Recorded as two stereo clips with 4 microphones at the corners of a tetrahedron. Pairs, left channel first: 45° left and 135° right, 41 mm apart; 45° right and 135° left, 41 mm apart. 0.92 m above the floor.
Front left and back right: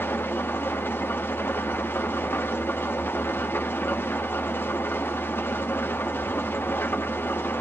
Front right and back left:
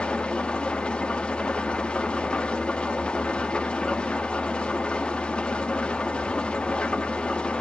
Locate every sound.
0.0 s an engine running: 20° left, 1.0 m